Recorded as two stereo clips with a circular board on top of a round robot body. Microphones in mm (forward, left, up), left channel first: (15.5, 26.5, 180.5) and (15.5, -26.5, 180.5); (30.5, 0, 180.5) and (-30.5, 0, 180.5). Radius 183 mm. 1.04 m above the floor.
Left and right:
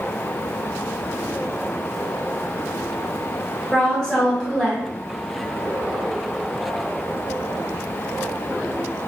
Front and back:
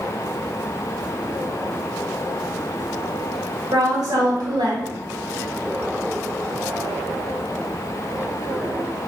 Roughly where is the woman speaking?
Behind.